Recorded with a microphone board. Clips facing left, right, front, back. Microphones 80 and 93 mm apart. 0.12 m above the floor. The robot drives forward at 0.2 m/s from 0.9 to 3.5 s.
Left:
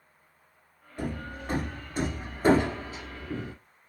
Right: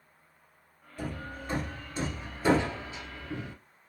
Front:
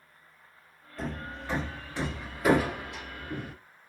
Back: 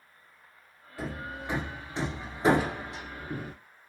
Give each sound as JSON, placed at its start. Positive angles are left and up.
{"t": 1.0, "sound": "hammering", "azimuth_deg": 100, "distance_m": 0.8}